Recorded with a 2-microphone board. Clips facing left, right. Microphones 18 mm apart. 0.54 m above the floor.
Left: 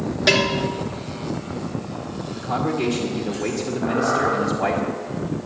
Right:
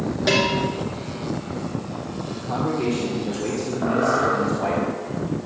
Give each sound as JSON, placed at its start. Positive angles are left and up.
{"t": 0.3, "sound": "a bell", "side_deg": 30, "distance_m": 2.5}
{"t": 2.4, "sound": "a man speaking", "side_deg": 40, "distance_m": 1.8}
{"t": 3.8, "sound": "a squeak", "side_deg": -85, "distance_m": 5.5}